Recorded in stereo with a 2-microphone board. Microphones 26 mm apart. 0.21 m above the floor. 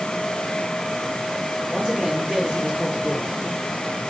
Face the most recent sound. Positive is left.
turn(degrees=-35)  # may be behind; listen again after turning